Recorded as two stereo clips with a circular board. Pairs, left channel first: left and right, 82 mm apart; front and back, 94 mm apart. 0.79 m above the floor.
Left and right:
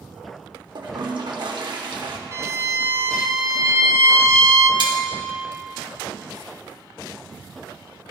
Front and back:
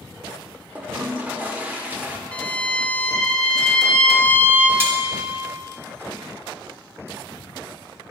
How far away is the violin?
About 0.6 m.